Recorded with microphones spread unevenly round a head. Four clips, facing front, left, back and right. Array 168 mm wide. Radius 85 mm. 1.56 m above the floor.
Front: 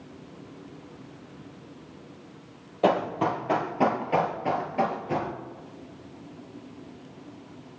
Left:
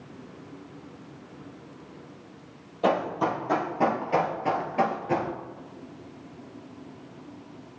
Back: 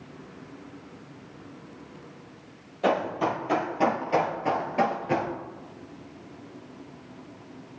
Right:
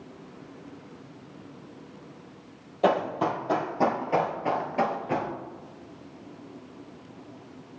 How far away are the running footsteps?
About 2 m.